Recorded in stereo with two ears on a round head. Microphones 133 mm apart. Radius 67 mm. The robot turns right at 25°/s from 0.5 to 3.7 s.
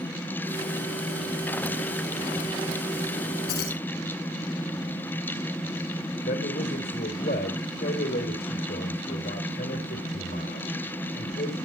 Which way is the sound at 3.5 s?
85° left.